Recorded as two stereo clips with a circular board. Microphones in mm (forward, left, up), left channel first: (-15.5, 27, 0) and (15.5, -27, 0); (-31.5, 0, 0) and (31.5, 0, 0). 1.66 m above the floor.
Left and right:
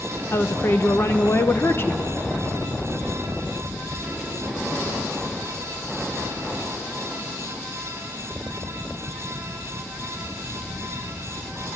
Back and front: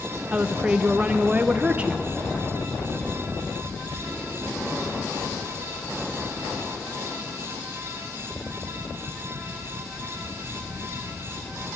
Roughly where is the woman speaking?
Left.